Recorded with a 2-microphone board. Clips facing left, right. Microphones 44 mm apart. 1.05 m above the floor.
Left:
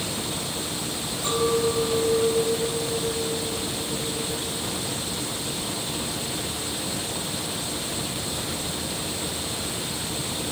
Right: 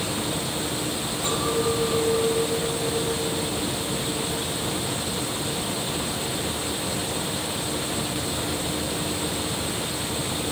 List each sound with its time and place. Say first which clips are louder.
1.2 s a clink: left 2 dB; 55° right (ahead or behind), 5 m